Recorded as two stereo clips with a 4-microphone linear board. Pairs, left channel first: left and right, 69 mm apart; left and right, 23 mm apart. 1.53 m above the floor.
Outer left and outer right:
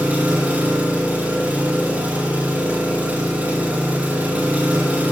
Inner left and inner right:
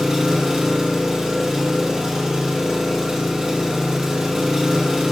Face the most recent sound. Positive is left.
turn(degrees=-20)  # may be behind; listen again after turning